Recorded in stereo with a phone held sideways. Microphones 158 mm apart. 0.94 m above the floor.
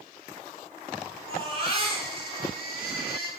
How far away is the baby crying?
About 4.5 m.